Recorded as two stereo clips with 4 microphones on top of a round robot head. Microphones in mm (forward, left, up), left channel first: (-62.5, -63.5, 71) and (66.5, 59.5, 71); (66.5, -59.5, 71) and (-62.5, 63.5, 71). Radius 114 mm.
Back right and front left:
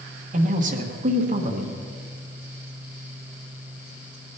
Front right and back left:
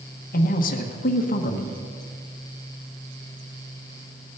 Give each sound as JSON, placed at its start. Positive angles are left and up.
{"t": 0.3, "sound": "a man speaking", "azimuth_deg": 0, "distance_m": 1.3}